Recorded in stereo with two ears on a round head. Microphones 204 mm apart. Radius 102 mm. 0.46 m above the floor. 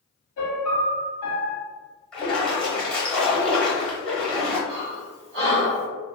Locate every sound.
0.4 s a piano: 70° left (ahead or behind), 0.9 m
2.1 s a splash: 5° left (ahead or behind), 1.0 m
4.7 s breathing: 45° right (ahead or behind), 1.8 m